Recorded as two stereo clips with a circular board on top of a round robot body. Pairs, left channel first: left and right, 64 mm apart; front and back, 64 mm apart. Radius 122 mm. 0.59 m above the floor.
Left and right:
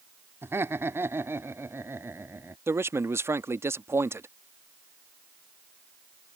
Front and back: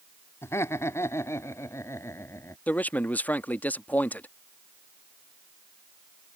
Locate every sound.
0.4 s laughter: 45° right
2.7 s a man speaking: 60° right